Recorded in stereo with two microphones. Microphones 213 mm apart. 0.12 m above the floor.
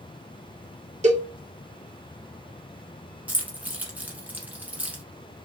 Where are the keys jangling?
10° right (ahead or behind), 0.7 m.